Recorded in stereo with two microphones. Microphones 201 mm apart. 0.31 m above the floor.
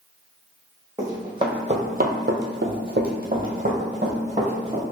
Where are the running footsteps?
15° right (ahead or behind), 1.1 m; by 4.8 s 30° right (ahead or behind), 1.8 m.